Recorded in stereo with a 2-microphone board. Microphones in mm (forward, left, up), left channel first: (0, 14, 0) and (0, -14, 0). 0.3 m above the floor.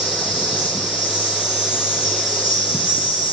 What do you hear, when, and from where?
0.0 s an insect: 35° right (ahead or behind), 7 m